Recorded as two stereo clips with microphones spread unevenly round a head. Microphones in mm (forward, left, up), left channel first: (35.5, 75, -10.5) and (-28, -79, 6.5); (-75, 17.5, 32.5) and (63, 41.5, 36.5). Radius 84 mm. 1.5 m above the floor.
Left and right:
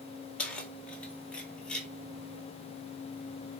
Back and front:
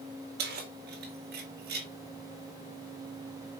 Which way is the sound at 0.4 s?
15° right.